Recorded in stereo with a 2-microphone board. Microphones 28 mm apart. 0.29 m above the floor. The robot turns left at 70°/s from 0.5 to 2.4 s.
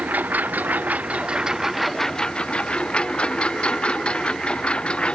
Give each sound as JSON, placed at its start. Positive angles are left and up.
{"t": 0.0, "sound": "a lawn mower", "azimuth_deg": -85}